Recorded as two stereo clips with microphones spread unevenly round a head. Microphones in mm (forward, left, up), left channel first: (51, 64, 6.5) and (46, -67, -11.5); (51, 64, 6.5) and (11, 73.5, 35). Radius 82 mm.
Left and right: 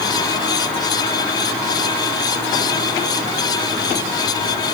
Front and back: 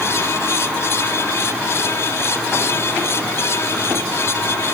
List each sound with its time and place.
Only background noise.